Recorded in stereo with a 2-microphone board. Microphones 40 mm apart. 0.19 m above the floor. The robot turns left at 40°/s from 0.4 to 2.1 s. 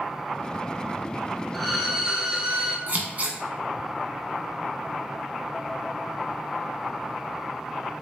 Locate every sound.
1.5 s a violin: 5° left (ahead or behind), 0.5 m; by 2.8 s 20° right (ahead or behind), 0.5 m
2.9 s scissors: 40° right (ahead or behind), 0.7 m